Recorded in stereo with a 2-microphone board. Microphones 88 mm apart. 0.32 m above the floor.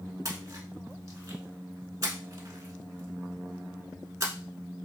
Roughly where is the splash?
Right.